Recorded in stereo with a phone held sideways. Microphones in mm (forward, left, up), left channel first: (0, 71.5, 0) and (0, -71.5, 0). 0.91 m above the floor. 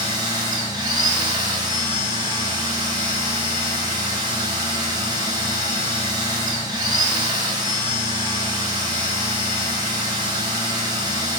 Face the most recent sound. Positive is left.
turn(degrees=-30)  # may be behind; listen again after turning